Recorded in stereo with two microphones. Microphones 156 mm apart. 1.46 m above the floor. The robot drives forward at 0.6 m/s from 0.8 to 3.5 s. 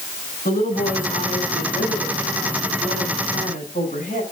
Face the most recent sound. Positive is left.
turn(degrees=60)  # may be behind; listen again after turning